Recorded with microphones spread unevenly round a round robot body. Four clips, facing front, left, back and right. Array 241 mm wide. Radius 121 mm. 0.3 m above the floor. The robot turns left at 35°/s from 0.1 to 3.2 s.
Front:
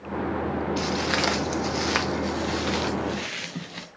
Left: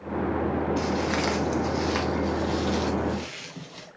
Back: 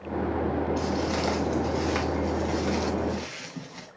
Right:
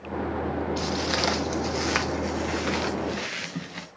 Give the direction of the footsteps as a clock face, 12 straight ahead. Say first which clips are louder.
Left 2 dB, front 1 dB; 12 o'clock.